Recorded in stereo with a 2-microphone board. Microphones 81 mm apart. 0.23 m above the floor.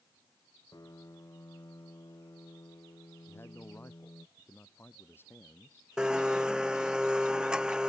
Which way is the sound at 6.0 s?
10° right (ahead or behind).